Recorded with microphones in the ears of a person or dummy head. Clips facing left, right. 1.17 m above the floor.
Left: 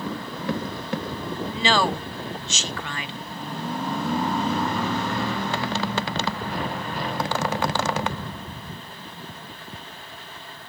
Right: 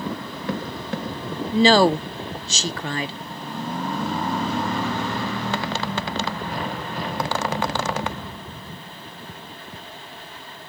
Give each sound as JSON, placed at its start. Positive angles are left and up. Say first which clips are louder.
{"t": 1.5, "sound": "a woman speaking", "louder": "right 9 dB", "side_deg": -35, "distance_m": 0.6}